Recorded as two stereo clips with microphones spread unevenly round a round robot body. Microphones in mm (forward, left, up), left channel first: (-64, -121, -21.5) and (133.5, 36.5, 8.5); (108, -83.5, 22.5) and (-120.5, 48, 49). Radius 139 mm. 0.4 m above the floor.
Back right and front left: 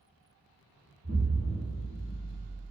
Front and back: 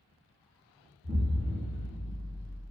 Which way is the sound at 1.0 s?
105° left.